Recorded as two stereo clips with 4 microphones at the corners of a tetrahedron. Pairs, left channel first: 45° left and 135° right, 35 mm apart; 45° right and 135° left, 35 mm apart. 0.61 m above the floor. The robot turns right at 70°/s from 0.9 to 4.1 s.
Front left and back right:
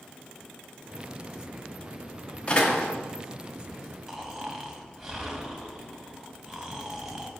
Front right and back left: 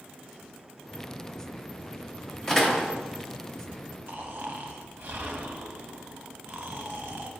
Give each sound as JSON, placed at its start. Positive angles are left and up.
{"t": 2.5, "sound": "a door slam", "azimuth_deg": 20, "distance_m": 0.9}
{"t": 4.1, "sound": "snoring", "azimuth_deg": 150, "distance_m": 0.7}